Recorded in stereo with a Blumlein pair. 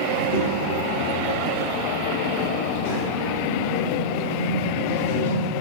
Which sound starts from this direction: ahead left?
A child speaking, at 0.1 s.